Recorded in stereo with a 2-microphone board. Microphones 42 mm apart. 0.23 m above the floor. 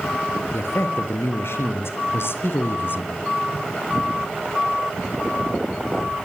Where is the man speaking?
70° left (ahead or behind), 4.5 m; by 3.3 s 50° left (ahead or behind), 2 m.